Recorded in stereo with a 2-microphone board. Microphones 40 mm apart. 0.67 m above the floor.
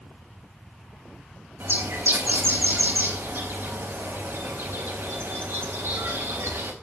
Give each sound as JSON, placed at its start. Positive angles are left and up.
{"t": 1.6, "sound": "a bird", "side_deg": -75, "distance_m": 4.0}